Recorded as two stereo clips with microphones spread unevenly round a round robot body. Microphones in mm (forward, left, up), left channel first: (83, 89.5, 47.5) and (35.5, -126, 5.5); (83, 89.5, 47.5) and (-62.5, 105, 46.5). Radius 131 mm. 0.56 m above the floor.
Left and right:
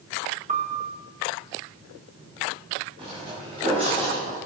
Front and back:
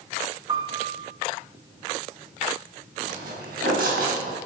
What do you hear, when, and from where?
0.5 s a piano: 135° right, 1.0 m
3.0 s footsteps: 175° right, 4.5 m; by 4.4 s 170° right, 4 m